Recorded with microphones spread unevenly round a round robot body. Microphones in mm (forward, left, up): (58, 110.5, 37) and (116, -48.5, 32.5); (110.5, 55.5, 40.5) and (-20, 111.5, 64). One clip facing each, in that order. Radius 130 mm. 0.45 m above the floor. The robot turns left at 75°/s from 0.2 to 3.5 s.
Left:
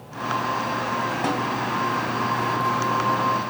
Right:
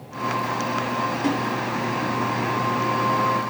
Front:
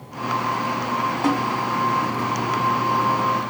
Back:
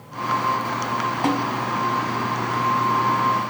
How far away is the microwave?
I don't hear a microwave.